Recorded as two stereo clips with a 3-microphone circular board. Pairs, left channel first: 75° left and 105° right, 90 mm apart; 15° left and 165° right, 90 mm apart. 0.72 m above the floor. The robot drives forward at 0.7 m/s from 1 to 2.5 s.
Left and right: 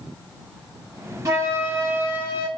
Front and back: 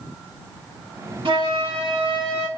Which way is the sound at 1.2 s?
155° right.